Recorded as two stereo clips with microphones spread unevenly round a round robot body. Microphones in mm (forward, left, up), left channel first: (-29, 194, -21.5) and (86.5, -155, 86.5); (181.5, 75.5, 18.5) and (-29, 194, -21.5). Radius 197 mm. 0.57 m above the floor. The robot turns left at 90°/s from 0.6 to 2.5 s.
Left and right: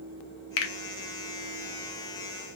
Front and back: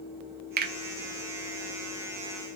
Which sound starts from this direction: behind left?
A finger snap, at 0.6 s.